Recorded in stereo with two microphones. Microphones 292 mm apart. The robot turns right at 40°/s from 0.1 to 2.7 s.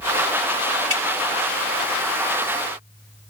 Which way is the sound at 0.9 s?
50° left (ahead or behind).